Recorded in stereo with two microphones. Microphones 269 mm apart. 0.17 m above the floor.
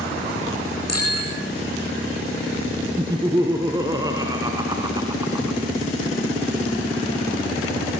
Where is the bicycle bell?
85° left, 8.5 m.